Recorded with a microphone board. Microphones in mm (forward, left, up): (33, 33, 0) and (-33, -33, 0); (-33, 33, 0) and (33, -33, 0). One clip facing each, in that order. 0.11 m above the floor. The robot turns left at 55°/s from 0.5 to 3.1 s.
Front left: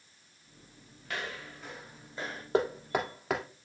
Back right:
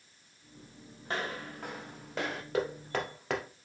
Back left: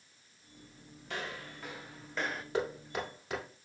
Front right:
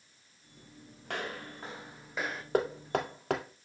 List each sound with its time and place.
1.1 s footsteps: 75° right, 3 m; by 2.4 s 140° right, 1.7 m
2.5 s knocking: 10° right, 1.9 m; by 3.4 s 40° right, 1.9 m